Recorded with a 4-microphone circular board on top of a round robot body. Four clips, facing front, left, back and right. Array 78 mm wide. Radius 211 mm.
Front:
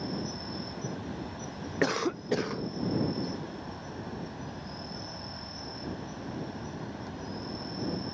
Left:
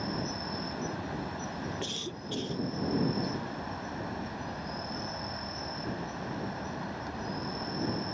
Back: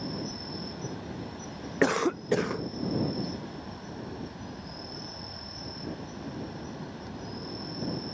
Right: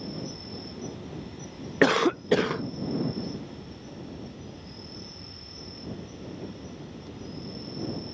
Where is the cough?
105° right.